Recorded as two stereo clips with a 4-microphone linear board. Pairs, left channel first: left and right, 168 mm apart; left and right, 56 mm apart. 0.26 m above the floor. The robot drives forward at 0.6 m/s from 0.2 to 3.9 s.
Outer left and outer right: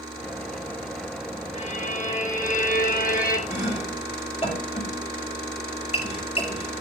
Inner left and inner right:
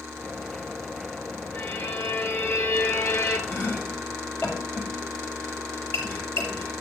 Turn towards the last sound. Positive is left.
turn(degrees=40)  # may be behind; listen again after turning